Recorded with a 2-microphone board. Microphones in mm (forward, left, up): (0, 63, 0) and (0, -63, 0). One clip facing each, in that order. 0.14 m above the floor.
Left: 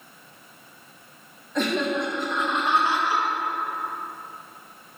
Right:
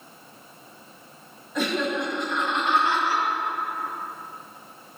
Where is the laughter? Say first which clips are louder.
Left 1 dB; 5° right (ahead or behind), 2.5 m; by 3.2 s 15° left (ahead or behind), 3.5 m.